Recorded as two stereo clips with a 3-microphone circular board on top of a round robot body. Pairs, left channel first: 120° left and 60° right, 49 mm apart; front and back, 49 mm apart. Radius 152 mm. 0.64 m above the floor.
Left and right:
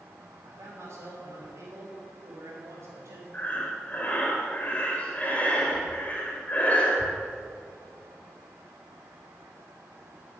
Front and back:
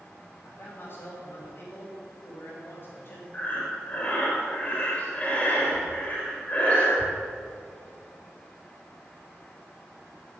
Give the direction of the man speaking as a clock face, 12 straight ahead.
1 o'clock.